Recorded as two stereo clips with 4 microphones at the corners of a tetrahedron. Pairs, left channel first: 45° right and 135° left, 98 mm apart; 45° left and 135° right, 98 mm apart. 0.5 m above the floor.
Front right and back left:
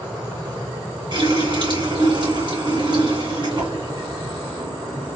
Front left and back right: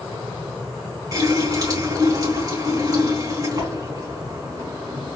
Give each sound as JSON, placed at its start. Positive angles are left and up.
{"t": 1.1, "sound": "a running tap", "azimuth_deg": 170, "distance_m": 3.0}